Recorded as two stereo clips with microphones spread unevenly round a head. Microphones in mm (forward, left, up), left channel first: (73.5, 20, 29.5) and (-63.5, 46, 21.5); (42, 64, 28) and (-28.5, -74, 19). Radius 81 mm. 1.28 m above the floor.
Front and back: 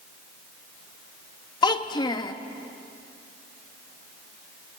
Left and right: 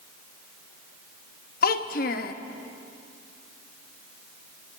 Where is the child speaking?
40° left, 1.0 m.